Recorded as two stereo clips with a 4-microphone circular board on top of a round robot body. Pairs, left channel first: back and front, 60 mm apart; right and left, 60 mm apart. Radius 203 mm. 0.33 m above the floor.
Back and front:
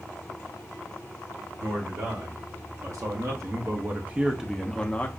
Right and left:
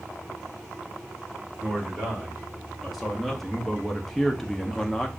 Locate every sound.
1.6 s a man speaking: straight ahead, 1.9 m; by 5.1 s 165° right, 0.8 m